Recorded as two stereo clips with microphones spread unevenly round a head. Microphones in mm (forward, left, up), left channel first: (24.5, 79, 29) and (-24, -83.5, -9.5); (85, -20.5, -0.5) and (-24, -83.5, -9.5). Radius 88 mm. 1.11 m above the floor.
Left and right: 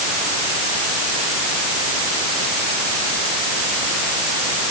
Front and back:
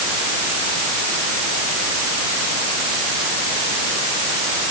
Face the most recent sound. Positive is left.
No sound to turn to.